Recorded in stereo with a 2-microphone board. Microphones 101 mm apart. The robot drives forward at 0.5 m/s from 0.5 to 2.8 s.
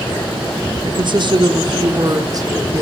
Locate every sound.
0.8 s a woman speaking: 55° right (ahead or behind), 1.2 m; by 2.8 s 35° right (ahead or behind), 1.7 m